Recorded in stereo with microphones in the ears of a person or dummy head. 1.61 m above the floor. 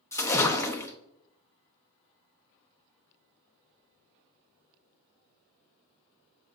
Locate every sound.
0.1 s a splash: 15° left (ahead or behind), 0.8 m